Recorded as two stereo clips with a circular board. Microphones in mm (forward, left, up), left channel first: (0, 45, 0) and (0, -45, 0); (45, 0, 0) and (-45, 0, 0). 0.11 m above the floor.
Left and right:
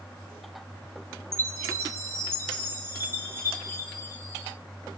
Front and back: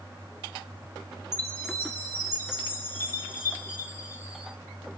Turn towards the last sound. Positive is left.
turn(degrees=-45)